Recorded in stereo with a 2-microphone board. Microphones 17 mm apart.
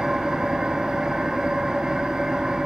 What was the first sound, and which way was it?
An engine running, 70° right (ahead or behind).